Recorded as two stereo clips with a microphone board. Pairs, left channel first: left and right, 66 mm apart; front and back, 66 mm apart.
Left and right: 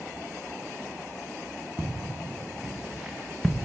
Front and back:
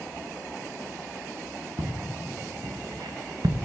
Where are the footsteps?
155° right, 1.8 m; by 3.5 s 170° left, 0.9 m.